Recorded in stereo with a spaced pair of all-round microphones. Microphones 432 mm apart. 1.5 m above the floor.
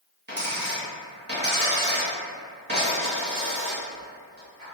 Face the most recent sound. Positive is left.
turn(degrees=-25)  # may be behind; listen again after turning